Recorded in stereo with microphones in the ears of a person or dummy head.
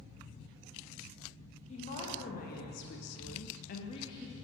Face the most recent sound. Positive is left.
turn(degrees=25)  # may be behind; listen again after turning